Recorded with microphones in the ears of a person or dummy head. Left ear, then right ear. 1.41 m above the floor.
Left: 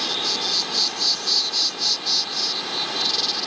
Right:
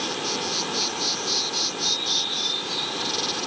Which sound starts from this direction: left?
An insect, at 0.0 s.